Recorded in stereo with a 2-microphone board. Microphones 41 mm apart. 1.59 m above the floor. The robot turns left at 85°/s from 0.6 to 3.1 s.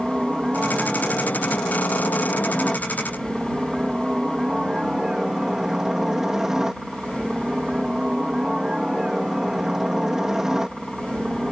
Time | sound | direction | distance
0.0 | a helicopter | 165° right | ?